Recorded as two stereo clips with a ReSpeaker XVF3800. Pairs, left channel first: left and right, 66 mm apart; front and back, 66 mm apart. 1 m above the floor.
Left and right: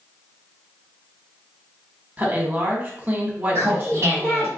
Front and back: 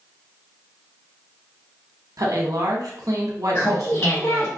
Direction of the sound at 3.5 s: 45° right.